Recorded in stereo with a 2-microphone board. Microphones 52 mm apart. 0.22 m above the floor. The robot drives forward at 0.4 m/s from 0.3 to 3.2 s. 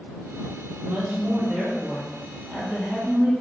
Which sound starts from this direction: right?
A woman speaking, at 0.8 s.